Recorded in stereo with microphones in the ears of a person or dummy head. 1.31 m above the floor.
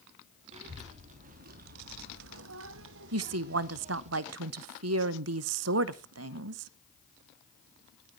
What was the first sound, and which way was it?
A child speaking, 30° right (ahead or behind).